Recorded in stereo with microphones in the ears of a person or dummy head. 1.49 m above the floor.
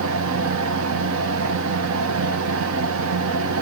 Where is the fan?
70° right (ahead or behind), 1.1 m.